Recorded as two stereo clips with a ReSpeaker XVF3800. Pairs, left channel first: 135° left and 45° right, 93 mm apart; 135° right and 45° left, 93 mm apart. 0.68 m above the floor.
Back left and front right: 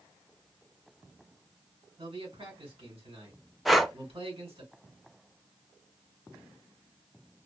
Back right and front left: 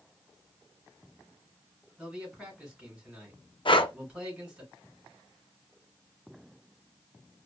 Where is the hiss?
No hiss in this recording.